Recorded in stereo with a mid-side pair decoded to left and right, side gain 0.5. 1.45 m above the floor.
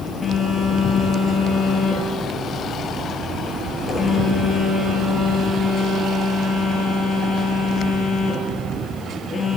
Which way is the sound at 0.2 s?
35° left.